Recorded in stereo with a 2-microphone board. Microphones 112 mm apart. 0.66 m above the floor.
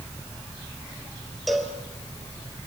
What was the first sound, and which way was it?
A cowbell, centre (ahead or behind).